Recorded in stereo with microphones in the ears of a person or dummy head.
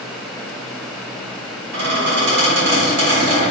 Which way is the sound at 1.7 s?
55° right (ahead or behind).